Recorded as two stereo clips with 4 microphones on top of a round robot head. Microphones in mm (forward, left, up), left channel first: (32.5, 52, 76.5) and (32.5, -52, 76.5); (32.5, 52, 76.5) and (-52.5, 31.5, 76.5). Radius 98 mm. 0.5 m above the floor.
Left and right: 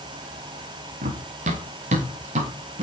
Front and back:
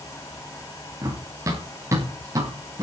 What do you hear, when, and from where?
1.0 s running footsteps: 105° right, 3 m